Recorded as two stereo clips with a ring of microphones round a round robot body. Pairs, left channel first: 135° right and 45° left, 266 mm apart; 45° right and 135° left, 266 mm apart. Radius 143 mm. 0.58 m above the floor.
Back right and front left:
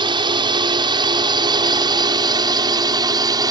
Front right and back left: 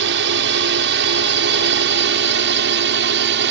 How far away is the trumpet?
No trumpet in this recording.